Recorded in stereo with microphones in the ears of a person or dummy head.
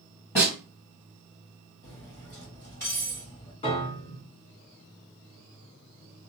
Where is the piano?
40° left (ahead or behind), 1.6 m.